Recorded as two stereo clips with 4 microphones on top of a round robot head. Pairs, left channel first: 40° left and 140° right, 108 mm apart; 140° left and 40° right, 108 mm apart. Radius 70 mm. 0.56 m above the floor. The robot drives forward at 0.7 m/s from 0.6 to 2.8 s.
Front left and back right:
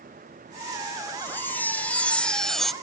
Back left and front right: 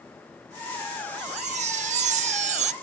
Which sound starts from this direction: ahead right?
A chime, at 1.2 s.